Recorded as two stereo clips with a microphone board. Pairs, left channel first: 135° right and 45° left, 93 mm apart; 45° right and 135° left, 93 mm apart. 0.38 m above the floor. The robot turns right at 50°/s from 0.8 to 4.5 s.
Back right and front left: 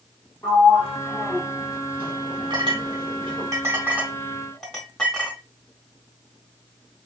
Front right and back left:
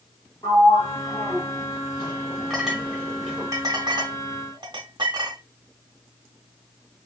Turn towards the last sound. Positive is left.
turn(degrees=140)